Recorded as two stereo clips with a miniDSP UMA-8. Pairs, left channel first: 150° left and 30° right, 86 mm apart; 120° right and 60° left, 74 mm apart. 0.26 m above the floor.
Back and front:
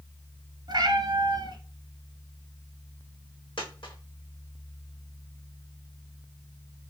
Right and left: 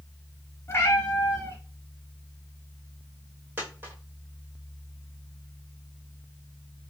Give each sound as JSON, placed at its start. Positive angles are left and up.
{"t": 0.7, "sound": "a cat meowing", "azimuth_deg": -65, "distance_m": 1.0}
{"t": 3.6, "sound": "a dropped coin", "azimuth_deg": 125, "distance_m": 1.7}